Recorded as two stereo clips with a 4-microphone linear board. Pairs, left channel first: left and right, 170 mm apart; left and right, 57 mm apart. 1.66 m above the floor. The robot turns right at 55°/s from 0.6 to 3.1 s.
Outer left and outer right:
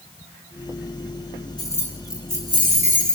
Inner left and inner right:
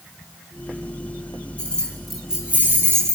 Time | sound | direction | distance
1.6 | keys jangling | 155° left | 6 m